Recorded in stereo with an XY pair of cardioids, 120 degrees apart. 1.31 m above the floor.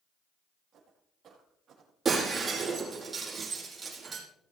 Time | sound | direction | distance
0.7 | footsteps | 50° right | 6 m
2.0 | breaking glass | 30° right | 6 m